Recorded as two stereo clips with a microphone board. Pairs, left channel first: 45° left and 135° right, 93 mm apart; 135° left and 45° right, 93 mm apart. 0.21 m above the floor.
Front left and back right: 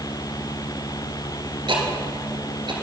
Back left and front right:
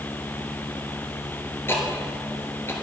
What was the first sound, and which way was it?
Ticking, 160° right.